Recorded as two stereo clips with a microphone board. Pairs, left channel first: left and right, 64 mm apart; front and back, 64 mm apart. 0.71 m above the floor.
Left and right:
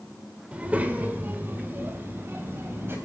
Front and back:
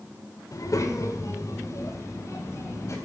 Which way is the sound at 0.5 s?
25° right.